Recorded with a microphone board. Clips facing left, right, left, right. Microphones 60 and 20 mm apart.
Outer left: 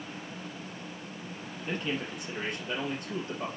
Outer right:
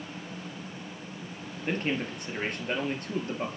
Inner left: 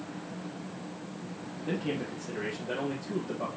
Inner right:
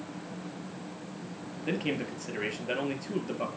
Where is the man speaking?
50° right (ahead or behind), 2.5 m.